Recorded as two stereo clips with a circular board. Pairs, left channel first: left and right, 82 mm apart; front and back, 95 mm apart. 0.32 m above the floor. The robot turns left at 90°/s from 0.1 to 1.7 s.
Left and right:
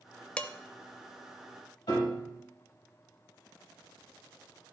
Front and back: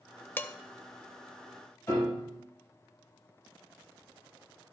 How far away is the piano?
About 4.5 m.